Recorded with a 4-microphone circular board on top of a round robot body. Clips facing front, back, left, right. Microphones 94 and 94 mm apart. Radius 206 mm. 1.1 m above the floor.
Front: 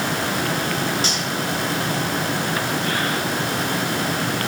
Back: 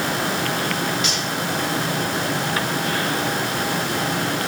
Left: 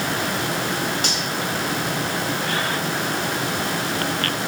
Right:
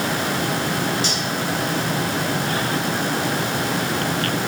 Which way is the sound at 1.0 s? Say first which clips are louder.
Even, right 1 dB; 55° left.